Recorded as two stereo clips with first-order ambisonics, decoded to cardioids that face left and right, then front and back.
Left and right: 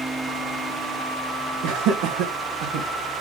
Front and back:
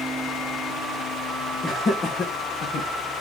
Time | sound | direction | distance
1.6 | laughter | 75° right | 1.3 m